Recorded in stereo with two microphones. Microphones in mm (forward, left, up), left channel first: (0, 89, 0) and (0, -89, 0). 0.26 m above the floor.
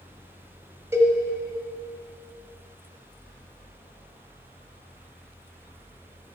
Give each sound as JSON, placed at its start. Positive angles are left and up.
{"t": 0.9, "sound": "a cowbell", "side_deg": -15, "distance_m": 1.4}